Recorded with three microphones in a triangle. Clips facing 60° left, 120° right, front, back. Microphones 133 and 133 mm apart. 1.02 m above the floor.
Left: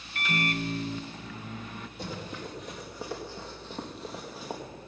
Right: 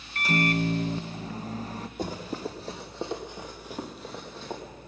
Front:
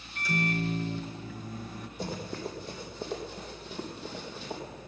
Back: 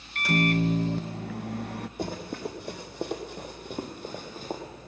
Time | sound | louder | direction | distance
0.1 | a microwave | right 5 dB, back 6 dB | 170° right | 0.5 m
2.0 | running footsteps | right 6 dB, back 1 dB | 160° right | 2.5 m